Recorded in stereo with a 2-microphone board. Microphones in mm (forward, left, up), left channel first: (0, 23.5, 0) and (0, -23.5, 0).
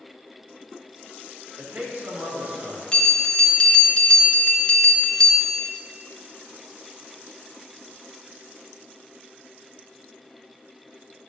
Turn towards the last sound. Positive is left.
turn(degrees=20)  # may be behind; listen again after turning